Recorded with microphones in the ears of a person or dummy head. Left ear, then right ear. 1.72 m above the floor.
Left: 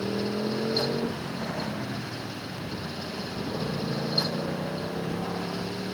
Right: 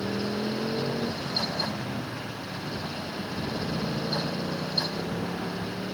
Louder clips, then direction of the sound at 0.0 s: Left 1 dB; 20° left (ahead or behind).